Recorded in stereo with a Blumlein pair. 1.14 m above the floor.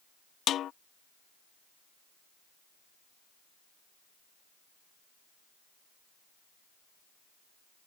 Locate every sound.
0.5 s a snare drum: 30° left